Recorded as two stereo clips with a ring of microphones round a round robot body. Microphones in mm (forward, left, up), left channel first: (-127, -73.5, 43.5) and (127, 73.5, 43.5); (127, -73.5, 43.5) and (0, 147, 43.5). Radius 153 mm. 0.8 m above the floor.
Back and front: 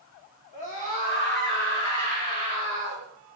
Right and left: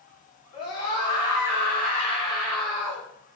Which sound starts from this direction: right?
A scream, at 0.5 s.